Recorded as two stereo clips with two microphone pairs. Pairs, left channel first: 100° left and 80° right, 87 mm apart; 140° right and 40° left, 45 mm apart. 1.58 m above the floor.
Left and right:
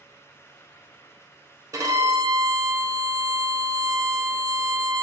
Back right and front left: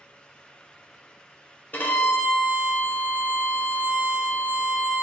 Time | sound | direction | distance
1.7 | a violin | 115° right | 0.5 m